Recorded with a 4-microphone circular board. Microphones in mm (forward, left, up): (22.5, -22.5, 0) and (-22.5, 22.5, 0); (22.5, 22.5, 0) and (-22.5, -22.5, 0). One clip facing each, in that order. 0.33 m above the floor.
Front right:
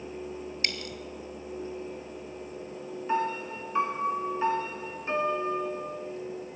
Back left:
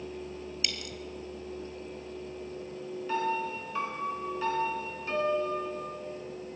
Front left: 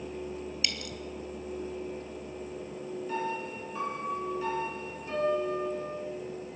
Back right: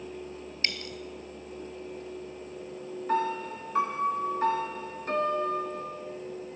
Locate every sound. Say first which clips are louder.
0.6 s a dropped coin: front right 5 dB, back right 7 dB; 85° right, 1.2 m
3.1 s a piano: front right 1 dB, back right 7 dB; 105° right, 1.7 m